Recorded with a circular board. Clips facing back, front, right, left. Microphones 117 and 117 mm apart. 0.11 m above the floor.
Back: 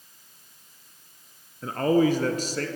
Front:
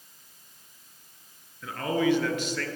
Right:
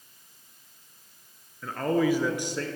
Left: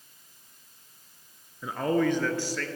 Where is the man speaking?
160° left, 1.4 m; by 2.7 s 140° right, 1.5 m.